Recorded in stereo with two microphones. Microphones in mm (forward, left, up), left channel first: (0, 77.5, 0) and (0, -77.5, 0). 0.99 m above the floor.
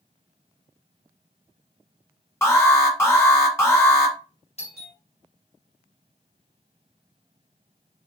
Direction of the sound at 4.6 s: 40° left (ahead or behind).